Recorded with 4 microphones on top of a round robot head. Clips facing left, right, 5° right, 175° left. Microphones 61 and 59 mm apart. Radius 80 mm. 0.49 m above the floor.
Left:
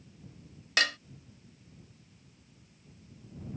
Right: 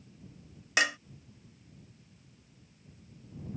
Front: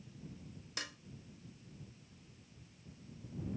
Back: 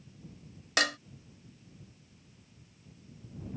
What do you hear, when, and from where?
0.8 s dishes clattering: 165° right